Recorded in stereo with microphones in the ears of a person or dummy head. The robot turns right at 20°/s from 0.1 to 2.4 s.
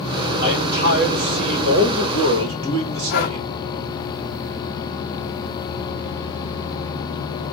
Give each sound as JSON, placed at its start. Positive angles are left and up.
{"t": 0.4, "sound": "a man speaking", "azimuth_deg": -130, "distance_m": 1.4}
{"t": 3.1, "sound": "breathing", "side_deg": 55, "distance_m": 0.8}